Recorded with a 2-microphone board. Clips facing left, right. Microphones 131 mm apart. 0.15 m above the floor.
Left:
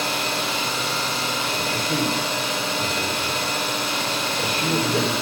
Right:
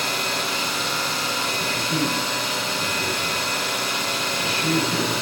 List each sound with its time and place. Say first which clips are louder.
0.0 s an engine running: left 1 dB; 25° left (ahead or behind), 4 m
1.6 s a man speaking: left 1 dB; 45° left (ahead or behind), 4 m